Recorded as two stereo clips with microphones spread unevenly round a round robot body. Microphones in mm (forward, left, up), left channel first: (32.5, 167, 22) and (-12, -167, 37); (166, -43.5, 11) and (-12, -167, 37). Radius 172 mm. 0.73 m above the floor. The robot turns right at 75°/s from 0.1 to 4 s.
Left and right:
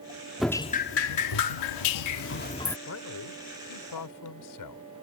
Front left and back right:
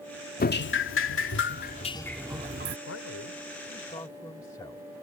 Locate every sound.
0.4 s dripping: 10° right; by 2.8 s 170° left
2.9 s a man speaking: 30° left; by 4.9 s 115° left